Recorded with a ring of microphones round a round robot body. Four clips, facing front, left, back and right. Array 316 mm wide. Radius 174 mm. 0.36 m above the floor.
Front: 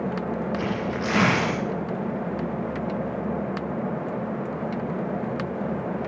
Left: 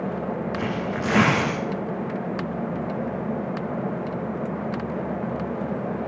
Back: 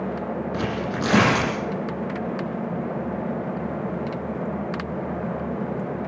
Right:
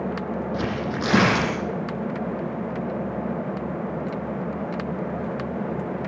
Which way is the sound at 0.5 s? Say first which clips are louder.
Even, back 1 dB; 130° right.